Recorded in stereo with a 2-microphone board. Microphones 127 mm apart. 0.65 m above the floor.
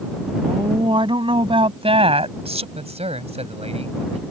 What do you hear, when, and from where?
0.4 s a woman speaking: 40° right (ahead or behind); by 2.6 s 60° right (ahead or behind)
2.8 s a man speaking: 60° right (ahead or behind)